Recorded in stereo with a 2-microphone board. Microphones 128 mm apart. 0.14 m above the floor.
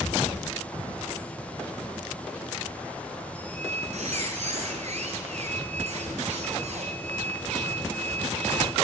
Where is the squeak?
60° right (ahead or behind), 1.7 m.